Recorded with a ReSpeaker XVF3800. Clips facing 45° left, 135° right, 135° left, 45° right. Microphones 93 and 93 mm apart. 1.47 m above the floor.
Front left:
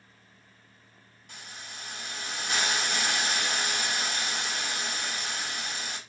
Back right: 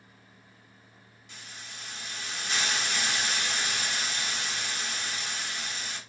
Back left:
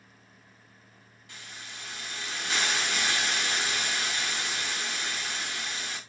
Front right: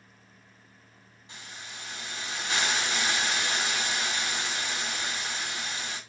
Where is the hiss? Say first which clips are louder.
Front left 2 dB, front right 1 dB; 20° left, 1.1 m.